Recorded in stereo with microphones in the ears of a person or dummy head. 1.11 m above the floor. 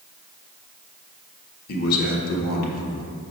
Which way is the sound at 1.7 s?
50° left (ahead or behind).